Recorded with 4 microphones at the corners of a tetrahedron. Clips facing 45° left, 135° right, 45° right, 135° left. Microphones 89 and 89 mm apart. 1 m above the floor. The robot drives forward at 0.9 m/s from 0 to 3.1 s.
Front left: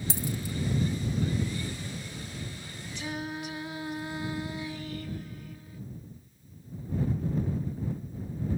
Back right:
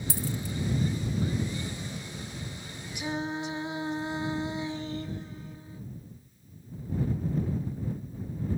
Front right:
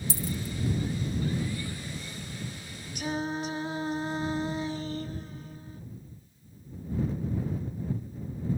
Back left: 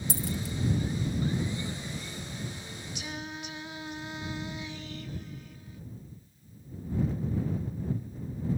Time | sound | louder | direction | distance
0.1 | a dropped coin | back right 1 dB, back left 1 dB | 110° left | ?
3.0 | singing | back right 4 dB, front right 10 dB | 65° right | ?